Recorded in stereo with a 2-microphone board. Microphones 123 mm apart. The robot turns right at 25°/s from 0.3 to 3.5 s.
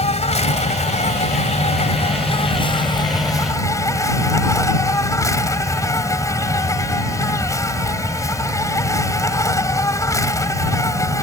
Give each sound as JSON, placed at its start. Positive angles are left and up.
{"t": 0.0, "sound": "an insect", "azimuth_deg": 70}